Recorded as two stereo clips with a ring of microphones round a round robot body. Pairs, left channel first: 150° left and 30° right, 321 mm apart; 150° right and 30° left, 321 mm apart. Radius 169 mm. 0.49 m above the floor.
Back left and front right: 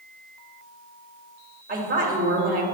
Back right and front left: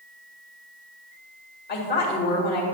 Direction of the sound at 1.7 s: 95° right.